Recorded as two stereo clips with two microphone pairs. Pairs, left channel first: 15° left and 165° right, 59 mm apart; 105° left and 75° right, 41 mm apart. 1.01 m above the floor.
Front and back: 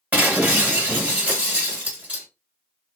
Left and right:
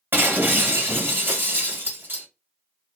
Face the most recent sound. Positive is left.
turn(degrees=-100)